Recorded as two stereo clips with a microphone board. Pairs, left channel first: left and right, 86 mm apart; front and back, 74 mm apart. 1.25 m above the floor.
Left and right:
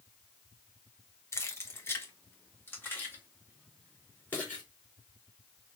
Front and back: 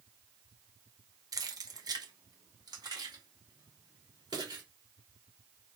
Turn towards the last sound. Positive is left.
turn(degrees=160)